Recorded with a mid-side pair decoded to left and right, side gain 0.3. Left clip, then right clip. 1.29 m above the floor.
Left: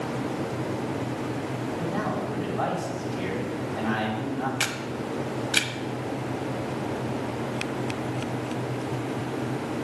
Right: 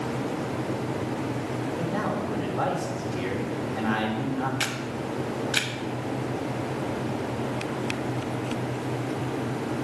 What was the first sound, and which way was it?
A man speaking, 55° right.